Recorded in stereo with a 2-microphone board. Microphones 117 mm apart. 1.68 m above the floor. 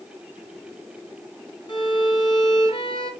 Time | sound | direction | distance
1.7 | a violin | 40° left (ahead or behind) | 0.8 m